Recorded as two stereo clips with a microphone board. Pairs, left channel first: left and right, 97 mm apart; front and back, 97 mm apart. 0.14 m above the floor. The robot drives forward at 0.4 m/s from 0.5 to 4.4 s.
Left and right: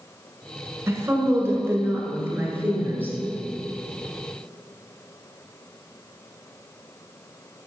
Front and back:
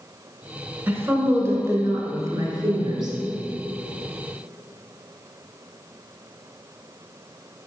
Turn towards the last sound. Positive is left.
turn(degrees=-160)